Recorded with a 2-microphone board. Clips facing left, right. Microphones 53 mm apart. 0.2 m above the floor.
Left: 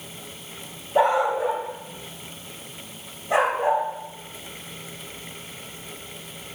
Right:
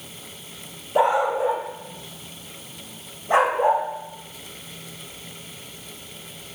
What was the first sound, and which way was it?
A dog barking, 10° right (ahead or behind).